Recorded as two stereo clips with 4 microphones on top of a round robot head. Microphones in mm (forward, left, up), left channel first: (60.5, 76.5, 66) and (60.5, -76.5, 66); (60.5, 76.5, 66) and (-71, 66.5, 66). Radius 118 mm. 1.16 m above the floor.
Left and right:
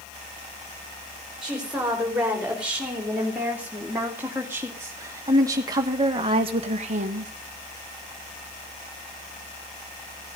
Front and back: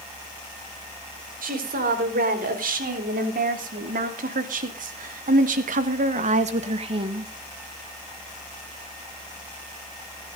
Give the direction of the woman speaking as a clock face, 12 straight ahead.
6 o'clock.